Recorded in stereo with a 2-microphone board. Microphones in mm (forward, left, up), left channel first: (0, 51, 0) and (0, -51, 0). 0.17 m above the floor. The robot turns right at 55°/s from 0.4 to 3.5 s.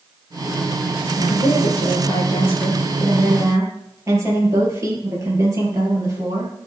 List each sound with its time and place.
1.2 s a woman speaking: 85° left, 4 m; by 6.5 s 150° right, 4 m